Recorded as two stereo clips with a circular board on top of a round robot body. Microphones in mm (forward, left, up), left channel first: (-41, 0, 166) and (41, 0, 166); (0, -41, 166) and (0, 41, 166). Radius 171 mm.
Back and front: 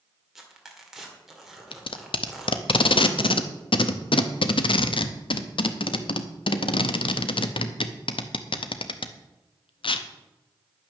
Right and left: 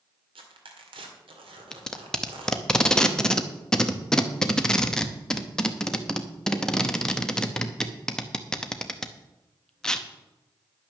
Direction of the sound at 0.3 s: 85° left.